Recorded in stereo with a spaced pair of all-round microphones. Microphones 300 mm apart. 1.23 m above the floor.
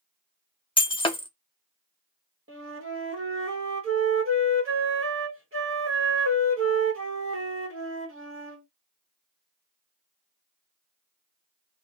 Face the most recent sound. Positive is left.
turn(degrees=-45)  # may be behind; listen again after turning